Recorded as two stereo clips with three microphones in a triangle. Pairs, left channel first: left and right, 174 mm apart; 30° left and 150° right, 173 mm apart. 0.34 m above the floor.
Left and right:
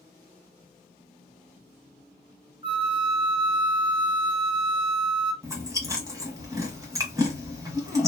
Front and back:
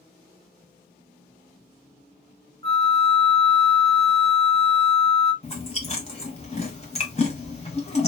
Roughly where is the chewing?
Ahead.